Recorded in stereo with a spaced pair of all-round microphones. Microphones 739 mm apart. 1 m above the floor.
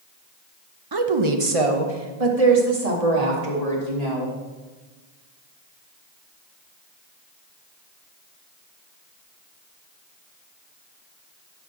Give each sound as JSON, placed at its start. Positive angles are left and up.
{"t": 0.9, "sound": "a woman speaking", "side_deg": -30, "distance_m": 0.7}